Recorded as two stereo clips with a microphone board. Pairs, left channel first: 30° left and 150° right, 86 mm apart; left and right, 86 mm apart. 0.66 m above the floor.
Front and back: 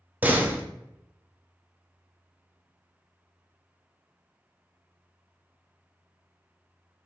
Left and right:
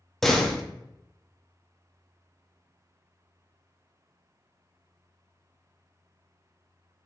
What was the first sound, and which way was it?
A door slam, 170° left.